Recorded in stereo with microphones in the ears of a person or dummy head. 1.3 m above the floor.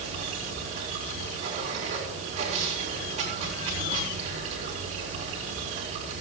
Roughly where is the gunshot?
No gunshot in this recording.